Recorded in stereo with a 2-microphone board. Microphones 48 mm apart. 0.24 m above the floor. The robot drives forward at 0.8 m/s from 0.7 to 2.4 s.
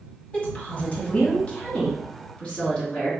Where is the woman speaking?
25° left (ahead or behind), 1.8 m; by 3.1 s 15° left (ahead or behind), 2.5 m.